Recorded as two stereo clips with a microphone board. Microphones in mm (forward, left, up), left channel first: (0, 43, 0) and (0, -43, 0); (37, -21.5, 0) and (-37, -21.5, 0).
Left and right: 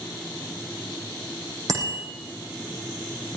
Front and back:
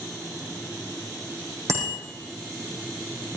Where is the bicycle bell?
135° right, 6 m.